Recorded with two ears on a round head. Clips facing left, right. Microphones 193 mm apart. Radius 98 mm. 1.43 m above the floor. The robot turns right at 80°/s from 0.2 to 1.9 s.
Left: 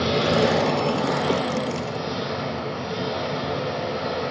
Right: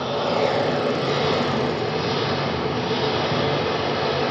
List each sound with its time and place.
0.0 s an engine running: 150° left, 2.5 m; by 4.3 s 75° right, 2.5 m